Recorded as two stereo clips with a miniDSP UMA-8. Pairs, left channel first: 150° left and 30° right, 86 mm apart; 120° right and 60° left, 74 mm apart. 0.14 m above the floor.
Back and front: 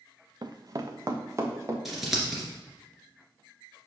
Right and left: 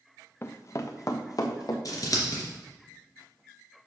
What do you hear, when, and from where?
0.4 s running footsteps: 65° right, 0.8 m; by 1.8 s 85° right, 2 m
1.9 s scissors: 120° right, 2.5 m